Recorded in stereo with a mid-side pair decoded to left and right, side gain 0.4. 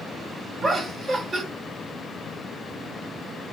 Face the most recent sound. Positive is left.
turn(degrees=-50)